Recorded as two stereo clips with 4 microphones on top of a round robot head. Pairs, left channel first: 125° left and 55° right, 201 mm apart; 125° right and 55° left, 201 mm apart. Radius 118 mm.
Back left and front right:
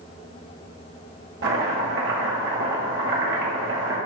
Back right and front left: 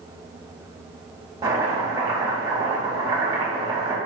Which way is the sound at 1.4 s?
20° right.